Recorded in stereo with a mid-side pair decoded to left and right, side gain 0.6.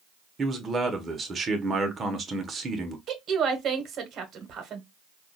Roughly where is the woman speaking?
Ahead right.